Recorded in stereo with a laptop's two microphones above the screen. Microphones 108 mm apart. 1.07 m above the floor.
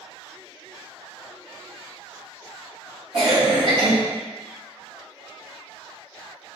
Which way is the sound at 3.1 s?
55° right (ahead or behind).